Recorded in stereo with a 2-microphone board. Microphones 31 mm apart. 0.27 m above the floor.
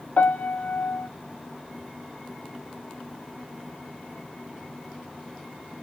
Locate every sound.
0.2 s a piano: 80° left, 0.6 m